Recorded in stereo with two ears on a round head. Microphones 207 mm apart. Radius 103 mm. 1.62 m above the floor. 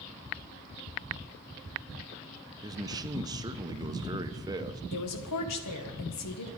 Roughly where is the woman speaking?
Left.